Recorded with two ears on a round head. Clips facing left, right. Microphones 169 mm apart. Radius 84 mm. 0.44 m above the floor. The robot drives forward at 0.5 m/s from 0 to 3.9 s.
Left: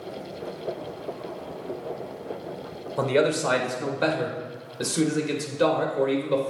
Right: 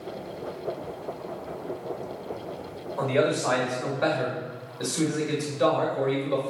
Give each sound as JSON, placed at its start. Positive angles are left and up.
{"t": 3.0, "sound": "a man speaking", "side_deg": 50, "distance_m": 1.1}